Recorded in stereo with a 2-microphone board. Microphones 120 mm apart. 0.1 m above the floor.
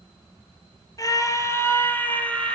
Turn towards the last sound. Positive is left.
turn(degrees=10)  # may be behind; listen again after turning